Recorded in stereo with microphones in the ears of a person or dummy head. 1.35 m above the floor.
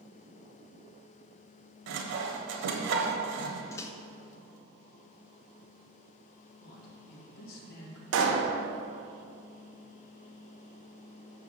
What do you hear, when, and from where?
1.9 s sawing: 75° right (ahead or behind), 1.1 m
3.7 s a microwave: 20° left (ahead or behind), 0.6 m
6.6 s a man speaking: 60° left (ahead or behind), 1.8 m
8.1 s a pop: 80° right, 1.3 m